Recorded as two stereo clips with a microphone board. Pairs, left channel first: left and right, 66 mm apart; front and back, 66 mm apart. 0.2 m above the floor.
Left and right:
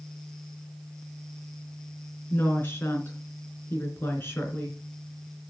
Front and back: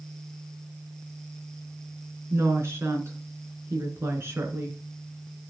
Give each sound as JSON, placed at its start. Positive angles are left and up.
{"t": 2.3, "sound": "a woman speaking", "azimuth_deg": 140, "distance_m": 3.0}